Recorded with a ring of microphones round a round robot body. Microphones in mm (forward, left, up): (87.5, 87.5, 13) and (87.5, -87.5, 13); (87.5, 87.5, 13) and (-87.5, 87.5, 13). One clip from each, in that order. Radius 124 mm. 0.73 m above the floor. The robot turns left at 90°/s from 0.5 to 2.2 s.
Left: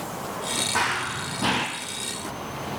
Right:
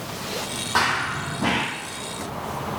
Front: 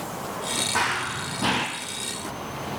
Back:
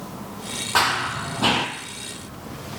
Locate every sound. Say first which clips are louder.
0.8 s running footsteps: right 7 dB, back 8 dB; 160° right, 1.1 m; by 1.7 s 120° left, 1.1 m